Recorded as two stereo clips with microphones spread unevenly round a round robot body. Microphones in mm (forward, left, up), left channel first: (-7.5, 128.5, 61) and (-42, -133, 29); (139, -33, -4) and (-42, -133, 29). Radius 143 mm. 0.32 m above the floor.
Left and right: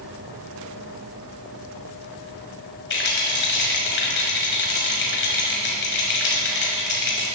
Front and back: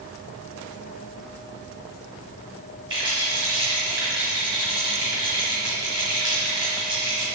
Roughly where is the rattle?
Behind left.